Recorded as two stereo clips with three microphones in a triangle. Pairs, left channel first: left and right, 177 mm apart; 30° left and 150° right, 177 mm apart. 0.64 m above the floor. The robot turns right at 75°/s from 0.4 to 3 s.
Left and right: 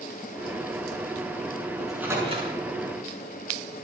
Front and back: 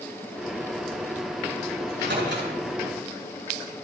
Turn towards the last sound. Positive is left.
turn(degrees=-100)